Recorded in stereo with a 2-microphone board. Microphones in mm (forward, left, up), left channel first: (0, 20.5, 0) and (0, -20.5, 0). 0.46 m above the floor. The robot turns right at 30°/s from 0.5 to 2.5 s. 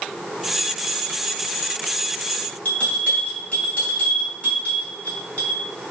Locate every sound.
2.6 s a bell: 35° left (ahead or behind), 1.7 m